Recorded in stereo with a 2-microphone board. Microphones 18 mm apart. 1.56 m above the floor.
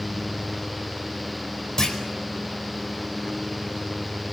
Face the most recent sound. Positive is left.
turn(degrees=40)  # may be behind; listen again after turning